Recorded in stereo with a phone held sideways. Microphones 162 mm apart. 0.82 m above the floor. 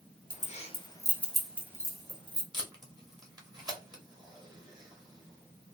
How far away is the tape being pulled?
About 1.1 m.